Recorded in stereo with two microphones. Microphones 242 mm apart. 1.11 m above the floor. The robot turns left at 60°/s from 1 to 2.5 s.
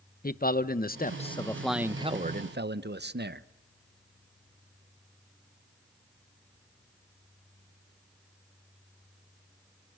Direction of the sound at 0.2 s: 40° left.